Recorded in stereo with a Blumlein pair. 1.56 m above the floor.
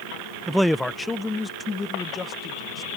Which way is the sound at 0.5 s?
5° right.